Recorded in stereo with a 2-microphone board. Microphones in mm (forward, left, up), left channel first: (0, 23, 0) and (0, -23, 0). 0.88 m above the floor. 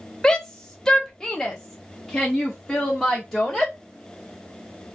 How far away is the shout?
About 0.8 m.